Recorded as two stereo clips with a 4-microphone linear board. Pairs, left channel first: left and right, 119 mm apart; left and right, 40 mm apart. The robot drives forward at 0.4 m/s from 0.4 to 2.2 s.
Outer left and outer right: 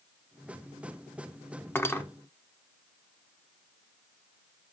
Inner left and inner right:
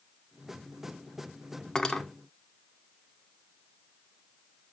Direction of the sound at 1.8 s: 20° left (ahead or behind).